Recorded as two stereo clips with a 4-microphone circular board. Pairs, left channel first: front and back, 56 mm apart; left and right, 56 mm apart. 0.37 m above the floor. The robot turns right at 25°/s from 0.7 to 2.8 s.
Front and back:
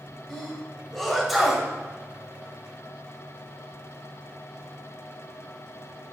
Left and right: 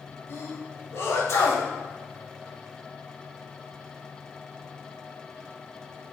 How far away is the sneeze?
About 2 m.